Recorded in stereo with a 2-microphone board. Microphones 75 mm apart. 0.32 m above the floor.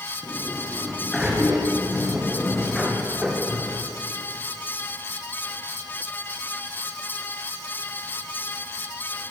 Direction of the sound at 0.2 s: Centre (ahead or behind).